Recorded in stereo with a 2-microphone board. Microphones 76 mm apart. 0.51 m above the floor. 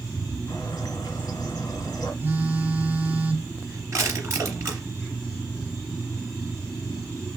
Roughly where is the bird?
Left.